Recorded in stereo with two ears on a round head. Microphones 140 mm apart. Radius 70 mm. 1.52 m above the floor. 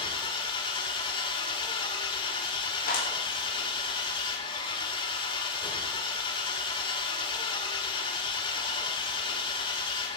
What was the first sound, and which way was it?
An engine running, 30° left (ahead or behind).